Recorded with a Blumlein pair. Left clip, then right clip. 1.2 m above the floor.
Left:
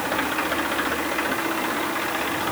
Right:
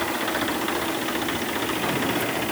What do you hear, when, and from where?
Only background noise.